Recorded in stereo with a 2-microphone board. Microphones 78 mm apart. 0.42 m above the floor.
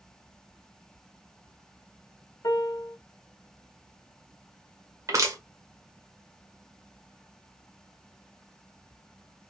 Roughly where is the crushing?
Right.